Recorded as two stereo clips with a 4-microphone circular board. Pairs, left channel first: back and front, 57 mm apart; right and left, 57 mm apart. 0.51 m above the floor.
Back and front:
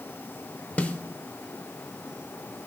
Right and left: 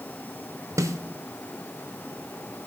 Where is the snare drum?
115° left, 0.7 m.